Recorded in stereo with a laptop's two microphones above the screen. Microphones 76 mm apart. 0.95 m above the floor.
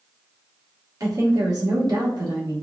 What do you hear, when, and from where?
1.0 s a woman speaking: 50° right (ahead or behind), 2 m; by 2.5 s 75° right (ahead or behind), 2 m